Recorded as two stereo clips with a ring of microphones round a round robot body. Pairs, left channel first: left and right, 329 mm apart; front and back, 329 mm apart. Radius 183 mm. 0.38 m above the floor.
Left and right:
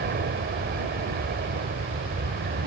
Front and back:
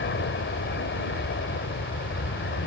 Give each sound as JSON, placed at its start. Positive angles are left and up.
{"t": 0.0, "sound": "an aircraft", "azimuth_deg": -40}